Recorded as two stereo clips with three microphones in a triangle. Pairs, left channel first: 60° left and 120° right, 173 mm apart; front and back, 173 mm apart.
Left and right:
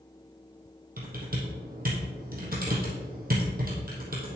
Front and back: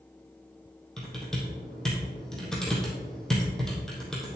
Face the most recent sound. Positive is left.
turn(degrees=-85)